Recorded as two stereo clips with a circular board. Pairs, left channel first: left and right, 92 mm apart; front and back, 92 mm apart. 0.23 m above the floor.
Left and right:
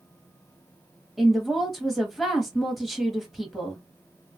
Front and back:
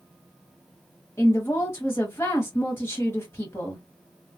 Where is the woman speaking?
5° right, 1.0 m.